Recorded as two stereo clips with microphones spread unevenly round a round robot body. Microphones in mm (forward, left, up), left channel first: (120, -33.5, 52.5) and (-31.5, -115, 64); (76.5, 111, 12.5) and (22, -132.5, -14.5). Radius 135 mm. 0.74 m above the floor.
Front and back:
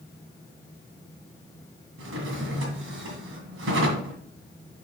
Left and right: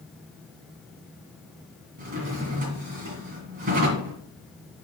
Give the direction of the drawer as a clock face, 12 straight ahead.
5 o'clock.